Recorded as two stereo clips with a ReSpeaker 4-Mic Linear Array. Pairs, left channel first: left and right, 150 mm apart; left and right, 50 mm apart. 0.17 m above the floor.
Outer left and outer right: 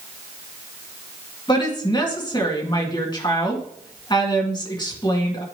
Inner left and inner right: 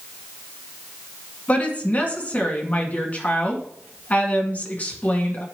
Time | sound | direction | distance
1.5 | a woman speaking | 30° left (ahead or behind) | 1.9 m